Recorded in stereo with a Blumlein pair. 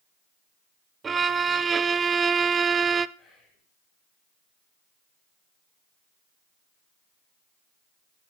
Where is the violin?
20° right, 0.6 m.